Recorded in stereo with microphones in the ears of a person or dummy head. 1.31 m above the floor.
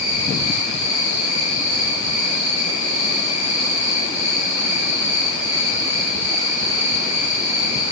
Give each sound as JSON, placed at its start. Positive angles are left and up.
{"t": 0.0, "sound": "an insect", "side_deg": 35, "distance_m": 1.5}